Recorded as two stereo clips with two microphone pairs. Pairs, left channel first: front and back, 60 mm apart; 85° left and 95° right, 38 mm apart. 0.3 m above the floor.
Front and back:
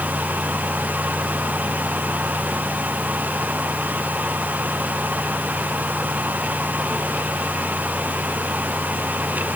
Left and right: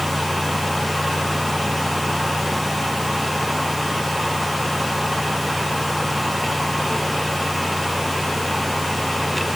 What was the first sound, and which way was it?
Only background noise.